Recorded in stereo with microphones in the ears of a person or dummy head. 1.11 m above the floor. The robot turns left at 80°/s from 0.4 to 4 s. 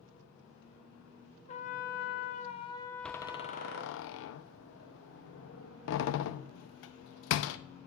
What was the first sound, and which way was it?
A trumpet, 130° left.